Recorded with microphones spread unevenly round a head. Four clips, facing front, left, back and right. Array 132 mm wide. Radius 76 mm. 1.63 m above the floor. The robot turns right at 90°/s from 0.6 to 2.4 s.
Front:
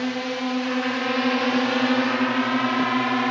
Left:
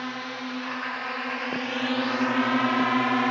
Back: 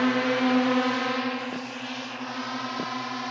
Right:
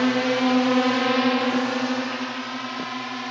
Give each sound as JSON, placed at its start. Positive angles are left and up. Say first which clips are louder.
{"t": 0.0, "sound": "a drone", "louder": "right 13 dB, back 3 dB", "azimuth_deg": -120}